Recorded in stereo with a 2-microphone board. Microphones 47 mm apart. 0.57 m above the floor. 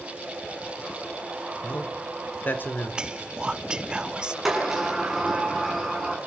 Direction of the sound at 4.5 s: 5° right (ahead or behind).